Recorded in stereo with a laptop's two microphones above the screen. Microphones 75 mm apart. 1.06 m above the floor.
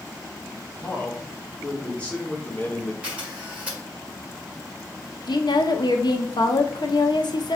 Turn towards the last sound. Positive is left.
turn(degrees=70)  # may be behind; listen again after turning